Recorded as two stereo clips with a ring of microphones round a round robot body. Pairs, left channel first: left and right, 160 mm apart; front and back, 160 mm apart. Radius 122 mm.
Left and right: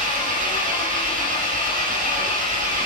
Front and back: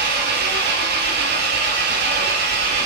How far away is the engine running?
About 4 m.